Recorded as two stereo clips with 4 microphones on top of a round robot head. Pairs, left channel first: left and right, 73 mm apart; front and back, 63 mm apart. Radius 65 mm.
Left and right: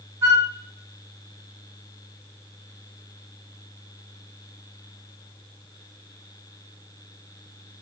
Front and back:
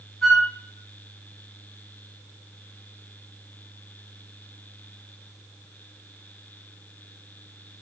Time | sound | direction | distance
0.2 | a flute | 90° right | 1.6 m